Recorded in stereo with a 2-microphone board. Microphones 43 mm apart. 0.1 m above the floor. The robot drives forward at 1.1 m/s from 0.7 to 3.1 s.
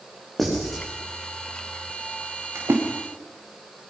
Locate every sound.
0.4 s writing: centre (ahead or behind), 8 m
2.5 s a splash: 75° right (ahead or behind), 5.5 m; by 2.8 s 70° right (ahead or behind), 6 m